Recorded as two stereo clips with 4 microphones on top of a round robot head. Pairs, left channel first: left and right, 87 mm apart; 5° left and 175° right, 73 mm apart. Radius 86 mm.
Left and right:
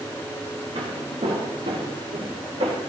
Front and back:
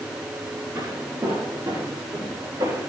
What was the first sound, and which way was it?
Footsteps, 120° right.